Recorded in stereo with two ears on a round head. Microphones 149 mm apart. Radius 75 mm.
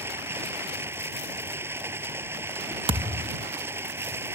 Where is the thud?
30° right (ahead or behind).